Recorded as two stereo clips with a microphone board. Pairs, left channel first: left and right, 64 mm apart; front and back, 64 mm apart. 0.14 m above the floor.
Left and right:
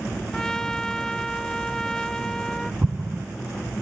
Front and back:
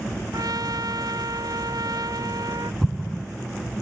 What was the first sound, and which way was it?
A trumpet, 170° left.